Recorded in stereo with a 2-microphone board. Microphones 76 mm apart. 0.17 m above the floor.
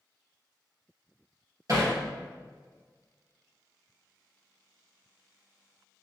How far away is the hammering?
About 2.5 m.